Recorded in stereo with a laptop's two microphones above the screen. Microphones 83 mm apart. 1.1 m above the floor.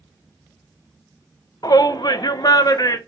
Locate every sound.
1.6 s a shout: 50° left (ahead or behind), 0.8 m; by 3.0 s 45° left (ahead or behind), 1.1 m